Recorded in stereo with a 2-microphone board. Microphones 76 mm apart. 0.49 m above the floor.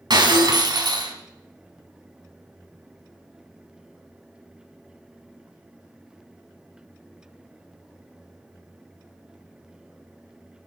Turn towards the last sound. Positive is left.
turn(degrees=-70)  # may be behind; listen again after turning